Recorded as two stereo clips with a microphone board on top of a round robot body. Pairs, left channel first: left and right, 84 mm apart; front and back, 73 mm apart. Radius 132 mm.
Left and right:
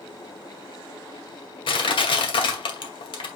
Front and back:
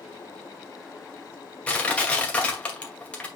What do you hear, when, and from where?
1.7 s crushing: 75° left, 2 m